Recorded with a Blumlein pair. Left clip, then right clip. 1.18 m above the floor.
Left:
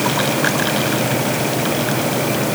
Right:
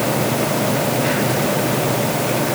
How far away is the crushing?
I don't hear crushing.